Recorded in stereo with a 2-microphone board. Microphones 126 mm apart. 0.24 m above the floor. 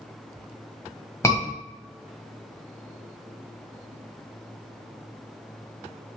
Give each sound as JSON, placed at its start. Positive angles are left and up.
{"t": 1.2, "sound": "a scream", "side_deg": 25, "distance_m": 1.5}